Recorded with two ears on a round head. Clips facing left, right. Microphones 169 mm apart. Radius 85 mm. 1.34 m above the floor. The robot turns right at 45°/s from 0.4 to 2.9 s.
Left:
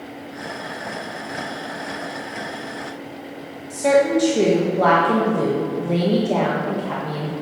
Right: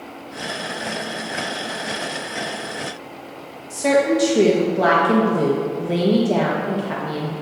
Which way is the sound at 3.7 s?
5° right (ahead or behind).